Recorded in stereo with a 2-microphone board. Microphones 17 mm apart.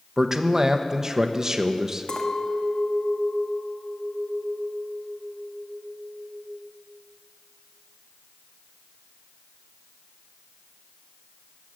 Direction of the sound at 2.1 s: 55° left (ahead or behind).